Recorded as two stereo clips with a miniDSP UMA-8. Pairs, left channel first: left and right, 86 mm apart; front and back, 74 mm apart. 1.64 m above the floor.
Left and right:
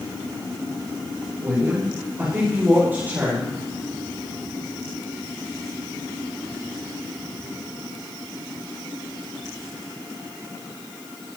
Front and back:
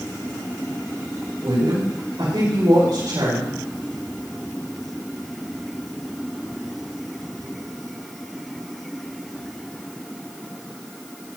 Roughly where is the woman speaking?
Behind.